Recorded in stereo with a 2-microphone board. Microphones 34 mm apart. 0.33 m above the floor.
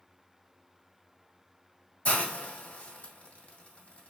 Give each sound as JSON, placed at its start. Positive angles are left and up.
{"t": 2.0, "sound": "a hiss", "side_deg": 40, "distance_m": 1.6}